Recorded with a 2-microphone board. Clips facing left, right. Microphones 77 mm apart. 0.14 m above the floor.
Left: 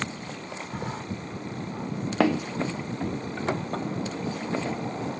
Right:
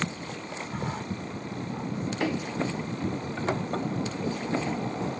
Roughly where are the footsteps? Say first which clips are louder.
Left 6 dB; left.